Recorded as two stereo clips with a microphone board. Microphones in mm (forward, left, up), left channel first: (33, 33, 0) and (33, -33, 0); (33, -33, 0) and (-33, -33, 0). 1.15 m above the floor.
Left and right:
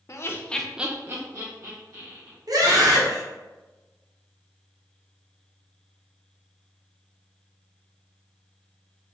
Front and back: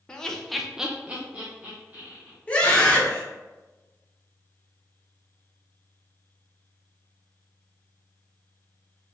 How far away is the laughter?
About 0.7 m.